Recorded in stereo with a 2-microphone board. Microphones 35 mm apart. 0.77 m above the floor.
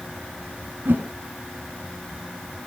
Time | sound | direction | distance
0.8 | a whoosh | 75° right (ahead or behind) | 5.5 m